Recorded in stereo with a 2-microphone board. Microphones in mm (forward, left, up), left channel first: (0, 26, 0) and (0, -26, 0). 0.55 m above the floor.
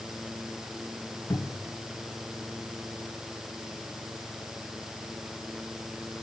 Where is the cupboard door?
80° left, 2.5 m.